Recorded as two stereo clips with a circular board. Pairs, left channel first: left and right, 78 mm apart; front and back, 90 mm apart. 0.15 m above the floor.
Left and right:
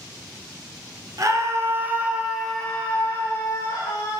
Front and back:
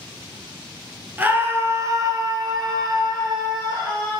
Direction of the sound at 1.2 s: 115° right.